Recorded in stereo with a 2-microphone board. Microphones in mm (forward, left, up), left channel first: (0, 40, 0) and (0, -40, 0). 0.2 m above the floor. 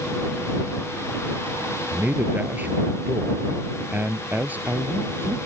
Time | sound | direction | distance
1.9 | a man speaking | 20° right (ahead or behind) | ?